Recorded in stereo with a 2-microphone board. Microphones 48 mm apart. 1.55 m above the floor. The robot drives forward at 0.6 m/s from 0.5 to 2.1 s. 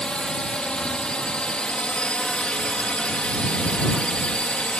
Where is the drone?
20° left (ahead or behind); by 4.8 s 25° left (ahead or behind).